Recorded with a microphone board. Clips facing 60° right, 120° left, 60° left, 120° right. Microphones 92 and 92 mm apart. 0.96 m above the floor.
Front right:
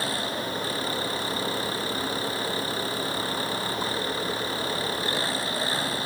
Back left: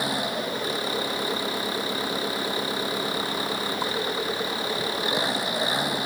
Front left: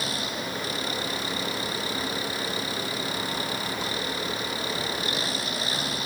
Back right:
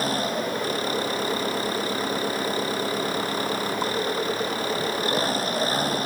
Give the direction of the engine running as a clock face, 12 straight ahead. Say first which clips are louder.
Back left 2 dB, back right 7 dB; 6 o'clock.